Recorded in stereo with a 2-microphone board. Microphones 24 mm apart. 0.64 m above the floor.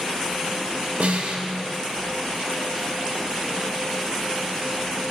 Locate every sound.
1.0 s a snare drum: 85° right, 0.8 m